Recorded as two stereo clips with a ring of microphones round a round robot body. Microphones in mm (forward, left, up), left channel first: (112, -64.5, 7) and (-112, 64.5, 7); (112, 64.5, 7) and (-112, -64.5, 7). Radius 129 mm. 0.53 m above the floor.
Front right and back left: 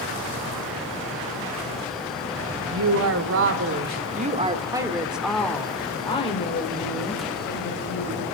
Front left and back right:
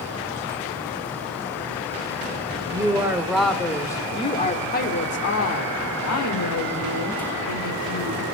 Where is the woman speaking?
135° left, 2.5 m; by 8.2 s 20° left, 4 m.